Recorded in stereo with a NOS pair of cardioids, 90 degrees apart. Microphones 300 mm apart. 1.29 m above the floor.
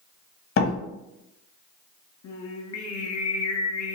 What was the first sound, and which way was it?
A door slam, 45° left.